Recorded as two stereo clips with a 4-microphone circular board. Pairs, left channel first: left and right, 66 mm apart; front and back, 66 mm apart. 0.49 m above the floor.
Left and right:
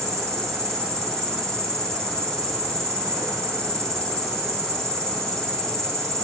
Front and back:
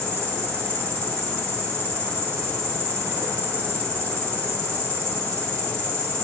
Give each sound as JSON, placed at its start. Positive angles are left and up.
{"t": 0.0, "sound": "an insect", "azimuth_deg": -140, "distance_m": 2.5}